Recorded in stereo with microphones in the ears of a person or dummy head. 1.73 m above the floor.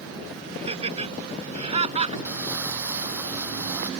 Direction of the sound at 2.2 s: 10° right (ahead or behind).